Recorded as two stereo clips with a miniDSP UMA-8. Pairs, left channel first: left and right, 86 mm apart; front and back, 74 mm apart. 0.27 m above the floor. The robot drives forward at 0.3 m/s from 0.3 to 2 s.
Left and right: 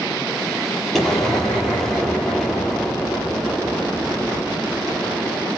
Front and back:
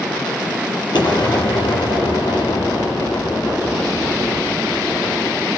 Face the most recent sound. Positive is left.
turn(degrees=0)